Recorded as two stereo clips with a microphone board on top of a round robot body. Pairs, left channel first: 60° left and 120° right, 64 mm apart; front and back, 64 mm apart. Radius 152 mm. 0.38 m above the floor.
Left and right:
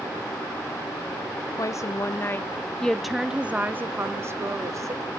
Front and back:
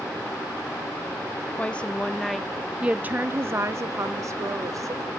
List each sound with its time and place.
1.6 s a woman speaking: 65° left, 1.2 m; by 5.0 s 150° right, 1.6 m